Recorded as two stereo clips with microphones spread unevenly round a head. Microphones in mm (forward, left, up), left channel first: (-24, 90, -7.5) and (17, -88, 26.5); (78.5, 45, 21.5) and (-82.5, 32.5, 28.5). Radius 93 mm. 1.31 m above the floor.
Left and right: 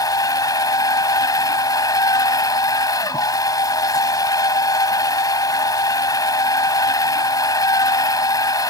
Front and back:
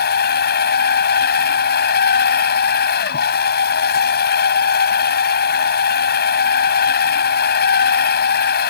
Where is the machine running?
30° left.